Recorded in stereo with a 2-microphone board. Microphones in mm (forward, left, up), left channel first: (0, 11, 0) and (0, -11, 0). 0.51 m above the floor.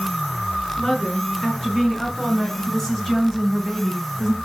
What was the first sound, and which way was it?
A woman speaking, 25° left (ahead or behind).